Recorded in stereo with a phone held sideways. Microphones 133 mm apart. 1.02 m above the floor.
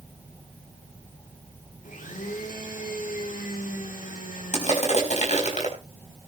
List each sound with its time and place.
1.8 s a blender: 80° left, 3 m
4.5 s crushing: 60° left (ahead or behind), 4.5 m